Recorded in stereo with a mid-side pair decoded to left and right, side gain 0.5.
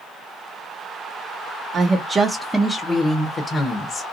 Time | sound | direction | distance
1.7 | a woman speaking | 55° right | 0.6 m